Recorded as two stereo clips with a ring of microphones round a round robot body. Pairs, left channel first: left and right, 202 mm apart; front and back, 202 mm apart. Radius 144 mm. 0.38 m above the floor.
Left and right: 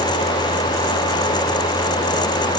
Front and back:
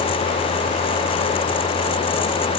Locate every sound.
Only background noise.